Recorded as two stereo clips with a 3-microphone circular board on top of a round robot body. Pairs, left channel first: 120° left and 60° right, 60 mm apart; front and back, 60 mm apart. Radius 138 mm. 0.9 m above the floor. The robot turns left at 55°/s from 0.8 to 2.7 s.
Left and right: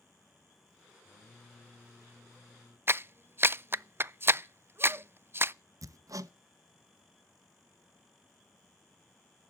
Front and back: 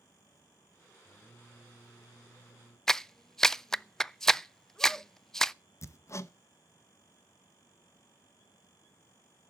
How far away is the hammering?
About 0.9 m.